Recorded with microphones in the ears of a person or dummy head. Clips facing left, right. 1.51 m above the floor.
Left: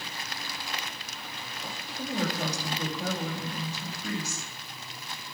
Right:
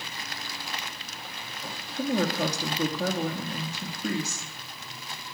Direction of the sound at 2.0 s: 60° right (ahead or behind).